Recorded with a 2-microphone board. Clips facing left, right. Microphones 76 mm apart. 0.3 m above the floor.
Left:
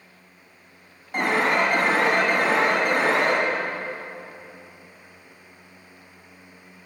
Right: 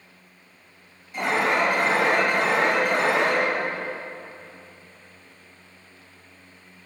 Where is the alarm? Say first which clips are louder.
Left 1 dB; 55° left (ahead or behind), 3.5 m.